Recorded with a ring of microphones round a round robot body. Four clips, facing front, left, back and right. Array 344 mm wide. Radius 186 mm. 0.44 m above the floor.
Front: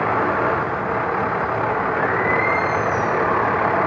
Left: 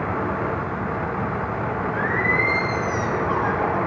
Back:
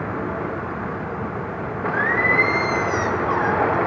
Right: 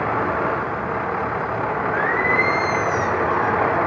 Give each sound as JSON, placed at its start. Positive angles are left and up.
{"t": 1.9, "sound": "singing", "azimuth_deg": -140, "distance_m": 3.0}